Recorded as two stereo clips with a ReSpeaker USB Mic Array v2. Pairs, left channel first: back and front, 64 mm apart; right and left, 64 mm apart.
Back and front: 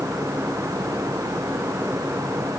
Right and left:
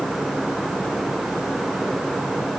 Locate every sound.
Only background noise.